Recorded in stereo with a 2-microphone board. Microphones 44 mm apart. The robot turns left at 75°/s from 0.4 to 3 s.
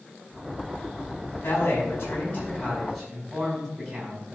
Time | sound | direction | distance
1.4 | a man speaking | 105° left | 4.5 m